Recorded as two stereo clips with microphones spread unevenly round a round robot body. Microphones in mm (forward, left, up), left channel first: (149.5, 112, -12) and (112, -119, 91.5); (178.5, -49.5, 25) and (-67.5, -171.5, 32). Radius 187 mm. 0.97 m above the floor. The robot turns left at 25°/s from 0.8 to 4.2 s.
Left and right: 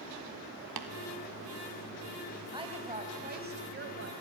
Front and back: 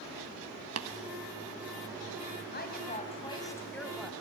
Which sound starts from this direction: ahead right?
A woman speaking, at 2.5 s.